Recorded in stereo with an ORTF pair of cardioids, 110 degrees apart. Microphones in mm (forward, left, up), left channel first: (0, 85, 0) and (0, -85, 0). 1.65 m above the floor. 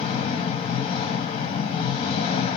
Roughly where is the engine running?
Ahead left.